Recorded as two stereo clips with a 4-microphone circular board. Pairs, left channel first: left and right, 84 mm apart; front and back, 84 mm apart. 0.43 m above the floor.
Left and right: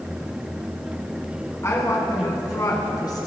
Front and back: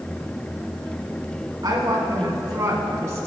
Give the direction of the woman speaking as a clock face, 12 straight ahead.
7 o'clock.